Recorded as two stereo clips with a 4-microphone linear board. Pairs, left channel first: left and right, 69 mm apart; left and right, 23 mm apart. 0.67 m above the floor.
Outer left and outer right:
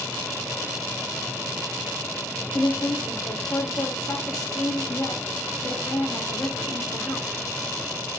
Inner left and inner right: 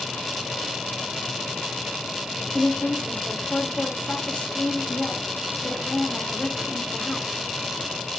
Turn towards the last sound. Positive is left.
turn(degrees=65)  # may be behind; listen again after turning